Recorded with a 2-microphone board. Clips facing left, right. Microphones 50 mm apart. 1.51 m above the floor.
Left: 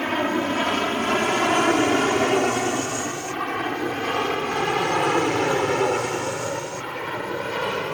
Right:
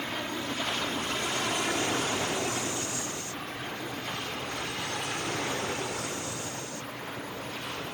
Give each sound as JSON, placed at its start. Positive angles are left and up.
{"t": 0.0, "sound": "an aircraft", "side_deg": 55}